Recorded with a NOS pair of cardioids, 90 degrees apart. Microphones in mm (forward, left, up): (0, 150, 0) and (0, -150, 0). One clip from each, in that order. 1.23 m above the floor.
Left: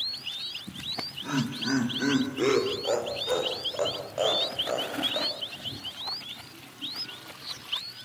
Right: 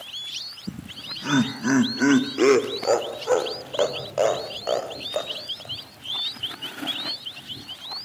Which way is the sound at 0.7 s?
55° right.